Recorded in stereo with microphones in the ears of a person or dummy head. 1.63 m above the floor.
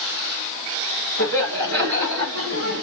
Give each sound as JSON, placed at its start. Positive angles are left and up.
{"t": 1.2, "sound": "laughter", "side_deg": -80, "distance_m": 3.5}